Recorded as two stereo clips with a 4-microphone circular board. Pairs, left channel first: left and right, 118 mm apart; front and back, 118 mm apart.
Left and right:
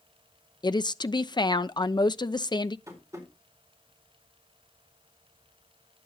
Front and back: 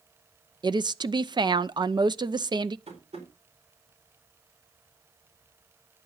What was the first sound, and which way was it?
A woman speaking, 135° left.